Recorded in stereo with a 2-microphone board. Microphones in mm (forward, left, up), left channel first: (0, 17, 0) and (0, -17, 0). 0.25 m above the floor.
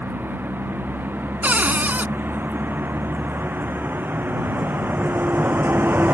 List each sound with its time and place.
0.0 s a vehicle: 85° right; by 6.2 s 75° right (ahead or behind)
1.4 s a cupboard door: 60° right (ahead or behind)